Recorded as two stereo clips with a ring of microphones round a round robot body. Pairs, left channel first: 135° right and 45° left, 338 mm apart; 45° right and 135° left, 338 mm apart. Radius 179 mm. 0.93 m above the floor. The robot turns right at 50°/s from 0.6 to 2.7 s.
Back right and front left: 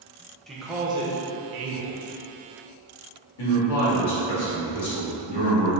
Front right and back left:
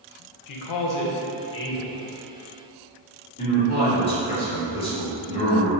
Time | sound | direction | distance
0.5 | a man speaking | 45° right | 0.6 m
3.4 | a man speaking | 120° right | 1.5 m